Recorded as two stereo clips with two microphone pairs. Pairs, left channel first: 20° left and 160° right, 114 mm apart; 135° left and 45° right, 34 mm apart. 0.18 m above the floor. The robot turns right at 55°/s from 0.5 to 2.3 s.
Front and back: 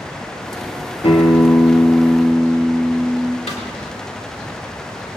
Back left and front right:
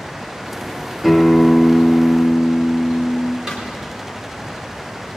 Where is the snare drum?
30° left, 4.5 m.